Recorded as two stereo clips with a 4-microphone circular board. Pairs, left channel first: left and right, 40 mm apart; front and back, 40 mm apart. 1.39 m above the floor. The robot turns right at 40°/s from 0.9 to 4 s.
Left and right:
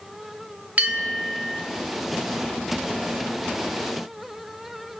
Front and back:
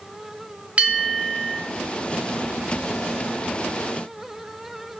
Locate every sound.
0.8 s a bell: 125° right, 0.7 m; by 1.6 s 100° right, 0.7 m